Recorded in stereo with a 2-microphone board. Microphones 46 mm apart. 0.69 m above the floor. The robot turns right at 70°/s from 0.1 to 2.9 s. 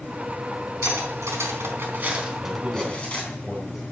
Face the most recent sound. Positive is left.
turn(degrees=0)